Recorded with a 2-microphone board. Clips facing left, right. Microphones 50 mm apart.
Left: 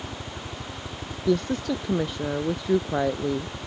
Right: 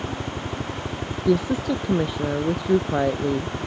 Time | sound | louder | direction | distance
0.0 | a helicopter | right 7 dB | 40° right (ahead or behind) | ?
1.3 | a woman speaking | right 3 dB | 5° right (ahead or behind) | ?